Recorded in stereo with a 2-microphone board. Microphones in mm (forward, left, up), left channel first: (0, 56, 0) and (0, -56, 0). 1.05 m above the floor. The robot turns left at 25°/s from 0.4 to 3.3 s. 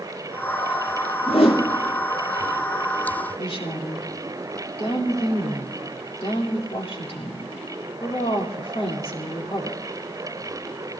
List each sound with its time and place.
1.3 s a whoosh: 65° left (ahead or behind), 3 m; by 1.6 s 75° left (ahead or behind), 3 m
3.4 s a woman speaking: 60° left (ahead or behind), 2.5 m